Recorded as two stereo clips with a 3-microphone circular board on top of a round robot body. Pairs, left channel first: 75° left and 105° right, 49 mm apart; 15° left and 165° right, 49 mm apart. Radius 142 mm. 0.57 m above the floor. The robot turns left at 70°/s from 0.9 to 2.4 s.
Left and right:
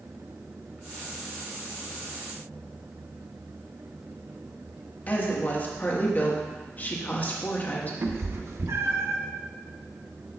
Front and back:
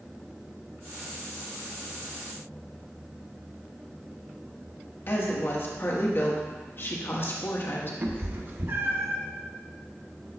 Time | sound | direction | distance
5.1 | a woman speaking | 35° left | 1.4 m
8.0 | a cat meowing | 125° right | 0.9 m